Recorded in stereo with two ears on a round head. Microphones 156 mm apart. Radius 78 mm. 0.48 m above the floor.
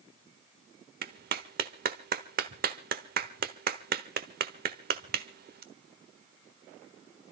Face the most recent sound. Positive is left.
turn(degrees=-55)  # may be behind; listen again after turning